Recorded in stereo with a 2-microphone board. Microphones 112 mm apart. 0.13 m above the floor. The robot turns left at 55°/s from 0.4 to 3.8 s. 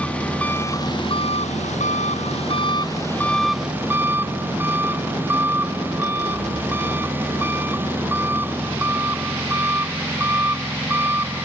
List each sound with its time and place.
0.0 s an engine running: 170° left; by 11.5 s 20° right